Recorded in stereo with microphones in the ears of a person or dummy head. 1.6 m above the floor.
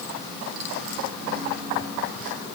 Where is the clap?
No clap in this recording.